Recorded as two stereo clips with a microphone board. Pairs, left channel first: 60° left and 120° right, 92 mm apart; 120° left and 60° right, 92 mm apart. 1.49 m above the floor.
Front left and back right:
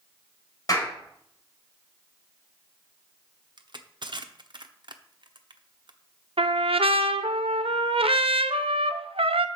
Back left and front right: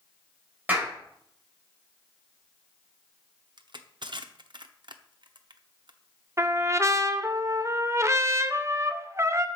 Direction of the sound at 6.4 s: 120° right.